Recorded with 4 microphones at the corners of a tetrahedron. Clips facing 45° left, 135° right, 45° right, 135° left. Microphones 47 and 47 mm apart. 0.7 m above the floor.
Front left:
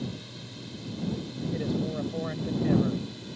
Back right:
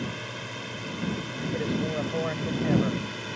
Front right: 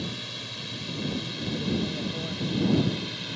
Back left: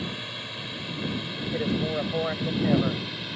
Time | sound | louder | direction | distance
0.0 | a drone | back right 4 dB, back left 2 dB | 155° right | ?
1.5 | a man speaking | back right 2 dB, back left 3 dB | 155° left | ?